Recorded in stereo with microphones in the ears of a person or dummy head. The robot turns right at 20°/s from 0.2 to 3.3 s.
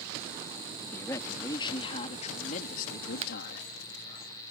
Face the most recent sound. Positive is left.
turn(degrees=-30)  # may be behind; listen again after turning